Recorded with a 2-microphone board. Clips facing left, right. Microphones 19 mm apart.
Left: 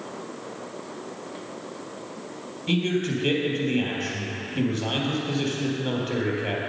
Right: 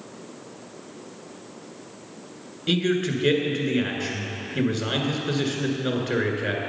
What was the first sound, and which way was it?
A man speaking, 45° right (ahead or behind).